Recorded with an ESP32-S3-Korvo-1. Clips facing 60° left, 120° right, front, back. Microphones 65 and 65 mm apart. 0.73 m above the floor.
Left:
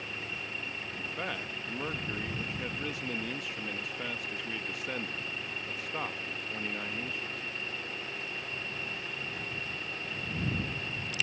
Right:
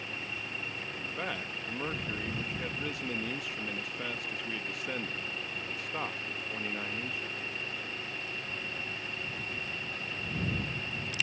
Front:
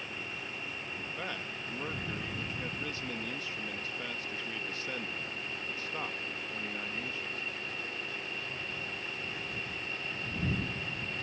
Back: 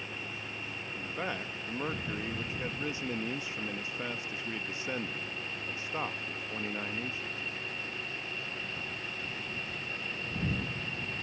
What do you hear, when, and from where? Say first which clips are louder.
0.9 s a man speaking: even, back 5 dB; 150° left